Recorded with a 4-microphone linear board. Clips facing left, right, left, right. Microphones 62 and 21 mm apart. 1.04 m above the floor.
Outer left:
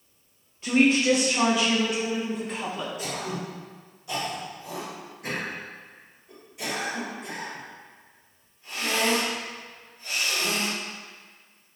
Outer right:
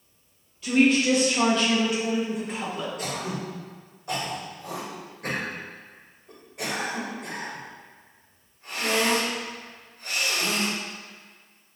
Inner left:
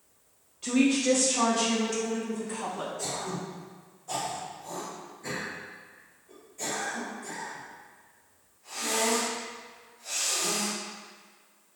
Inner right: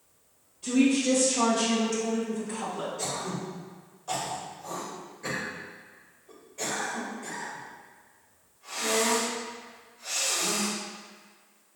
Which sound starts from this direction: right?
Throat clearing, at 3.0 s.